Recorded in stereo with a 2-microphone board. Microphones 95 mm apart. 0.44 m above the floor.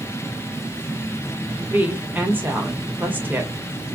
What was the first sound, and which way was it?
A woman speaking, 20° right (ahead or behind).